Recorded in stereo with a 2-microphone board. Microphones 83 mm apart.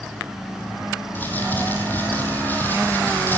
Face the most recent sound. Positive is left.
turn(degrees=20)  # may be behind; listen again after turning